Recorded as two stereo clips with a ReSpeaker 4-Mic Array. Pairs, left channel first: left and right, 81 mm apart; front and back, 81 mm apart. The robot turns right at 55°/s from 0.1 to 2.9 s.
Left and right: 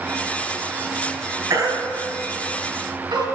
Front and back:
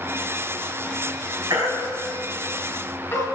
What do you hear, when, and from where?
1.5 s a baby crying: 135° right, 4 m; by 3.3 s 60° right, 4 m